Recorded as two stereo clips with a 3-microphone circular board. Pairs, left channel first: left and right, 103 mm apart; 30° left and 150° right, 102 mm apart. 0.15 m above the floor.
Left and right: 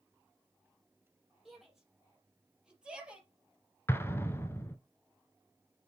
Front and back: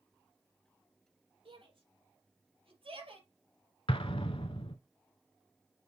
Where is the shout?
Straight behind, 5 m; by 3.3 s 165° right, 3.5 m.